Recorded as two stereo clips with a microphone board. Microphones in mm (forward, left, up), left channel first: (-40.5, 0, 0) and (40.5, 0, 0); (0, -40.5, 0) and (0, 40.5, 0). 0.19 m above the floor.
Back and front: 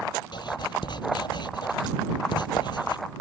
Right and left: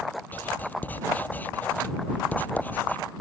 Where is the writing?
160° right.